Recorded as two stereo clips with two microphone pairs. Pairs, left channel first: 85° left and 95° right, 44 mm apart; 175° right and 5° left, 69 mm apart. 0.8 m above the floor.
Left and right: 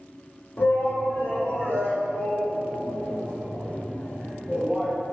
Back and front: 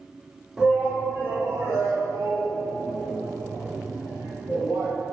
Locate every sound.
0.6 s a shout: 80° left, 1.7 m; by 4.9 s 20° left, 6 m